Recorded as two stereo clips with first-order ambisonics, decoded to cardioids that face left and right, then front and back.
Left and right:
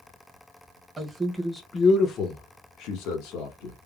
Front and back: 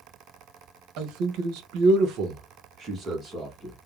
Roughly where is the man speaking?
Behind.